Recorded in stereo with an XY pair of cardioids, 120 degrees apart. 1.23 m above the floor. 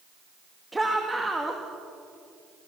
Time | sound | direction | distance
0.7 | a shout | 10° right | 2 m